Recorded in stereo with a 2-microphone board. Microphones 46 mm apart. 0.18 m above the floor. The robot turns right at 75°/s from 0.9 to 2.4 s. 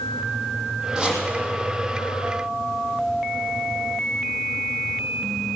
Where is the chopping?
10° right (ahead or behind), 6 m; by 1.2 s 30° right (ahead or behind), 6 m.